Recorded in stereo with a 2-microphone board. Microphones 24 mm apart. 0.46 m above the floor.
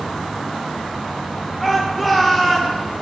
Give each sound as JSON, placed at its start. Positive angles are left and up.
{"t": 1.6, "sound": "a shout", "side_deg": 0, "distance_m": 1.7}